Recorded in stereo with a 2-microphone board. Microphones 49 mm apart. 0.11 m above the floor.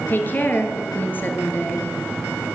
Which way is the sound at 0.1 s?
40° left (ahead or behind).